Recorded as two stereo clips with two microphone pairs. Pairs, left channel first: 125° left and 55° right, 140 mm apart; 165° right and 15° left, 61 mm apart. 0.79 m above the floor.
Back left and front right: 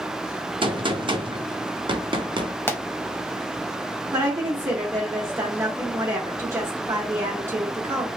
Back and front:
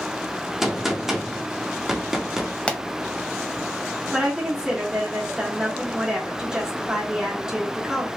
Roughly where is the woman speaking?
Ahead right.